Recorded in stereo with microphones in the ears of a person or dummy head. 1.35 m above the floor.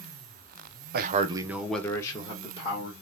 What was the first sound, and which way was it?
A man speaking, 55° right (ahead or behind).